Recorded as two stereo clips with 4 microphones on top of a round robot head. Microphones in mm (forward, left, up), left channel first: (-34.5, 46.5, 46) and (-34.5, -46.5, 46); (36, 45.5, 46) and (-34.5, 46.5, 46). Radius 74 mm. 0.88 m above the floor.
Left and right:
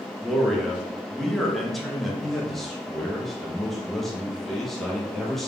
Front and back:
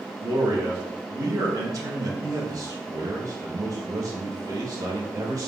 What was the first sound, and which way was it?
A man speaking, straight behind.